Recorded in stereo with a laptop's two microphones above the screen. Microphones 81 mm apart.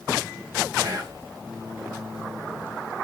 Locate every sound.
0.8 s whispering: 45° right (ahead or behind), 1.1 m